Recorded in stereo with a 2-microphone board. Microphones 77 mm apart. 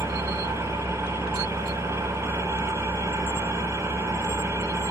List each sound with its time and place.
0.0 s an engine running: 40° right (ahead or behind), 3.5 m